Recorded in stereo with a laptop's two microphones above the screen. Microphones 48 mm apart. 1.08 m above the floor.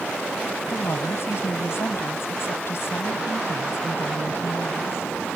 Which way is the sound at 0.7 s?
55° left (ahead or behind).